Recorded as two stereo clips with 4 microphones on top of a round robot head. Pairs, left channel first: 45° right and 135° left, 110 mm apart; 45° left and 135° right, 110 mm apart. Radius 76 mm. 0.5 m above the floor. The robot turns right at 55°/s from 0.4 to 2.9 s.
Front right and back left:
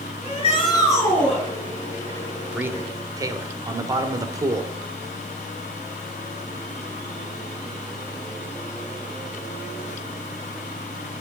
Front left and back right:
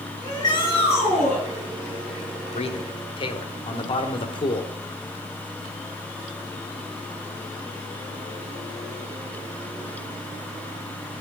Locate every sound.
0.2 s a shout: 15° right, 8 m; by 1.4 s 45° left, 8 m
2.5 s a man speaking: 60° left, 1.5 m; by 4.7 s 80° left, 1.5 m